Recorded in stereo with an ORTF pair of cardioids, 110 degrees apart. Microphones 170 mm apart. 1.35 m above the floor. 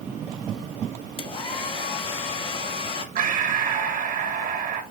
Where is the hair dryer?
35° left, 1.5 m.